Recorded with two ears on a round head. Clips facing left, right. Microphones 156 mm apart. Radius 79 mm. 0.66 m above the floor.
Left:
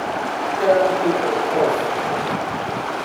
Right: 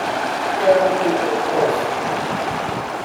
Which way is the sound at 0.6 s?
5° left (ahead or behind).